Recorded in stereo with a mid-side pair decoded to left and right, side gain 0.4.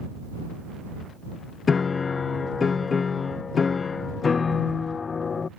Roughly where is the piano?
Ahead left.